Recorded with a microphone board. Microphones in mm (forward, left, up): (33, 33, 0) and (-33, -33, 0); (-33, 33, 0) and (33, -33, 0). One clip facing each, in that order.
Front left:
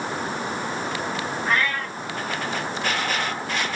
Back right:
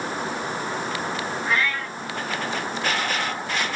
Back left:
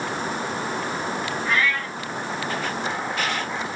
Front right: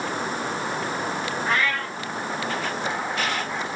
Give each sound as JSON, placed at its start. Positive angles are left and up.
{"t": 1.4, "sound": "a cat meowing", "azimuth_deg": 10, "distance_m": 4.0}